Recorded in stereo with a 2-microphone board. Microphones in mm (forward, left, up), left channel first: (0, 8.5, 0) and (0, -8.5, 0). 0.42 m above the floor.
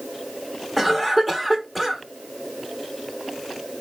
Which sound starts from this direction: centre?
A cough, at 0.8 s.